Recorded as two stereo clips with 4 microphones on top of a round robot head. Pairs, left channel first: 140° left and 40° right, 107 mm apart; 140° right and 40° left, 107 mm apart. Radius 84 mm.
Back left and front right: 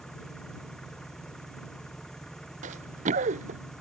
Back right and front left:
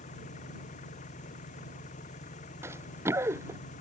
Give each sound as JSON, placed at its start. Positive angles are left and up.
{"t": 0.0, "sound": "an engine running", "azimuth_deg": -135}
{"t": 2.6, "sound": "running footsteps", "azimuth_deg": -25}